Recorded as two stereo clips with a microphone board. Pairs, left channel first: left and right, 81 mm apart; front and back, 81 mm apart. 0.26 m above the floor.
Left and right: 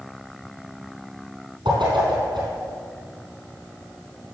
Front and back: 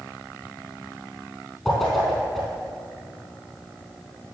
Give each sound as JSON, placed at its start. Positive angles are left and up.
{"t": 1.6, "sound": "a whoosh", "azimuth_deg": -85, "distance_m": 4.0}